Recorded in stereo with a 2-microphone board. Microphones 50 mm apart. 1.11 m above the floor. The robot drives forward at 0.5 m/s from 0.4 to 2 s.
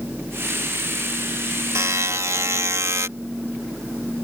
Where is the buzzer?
75° right (ahead or behind); by 3.1 s 70° right (ahead or behind).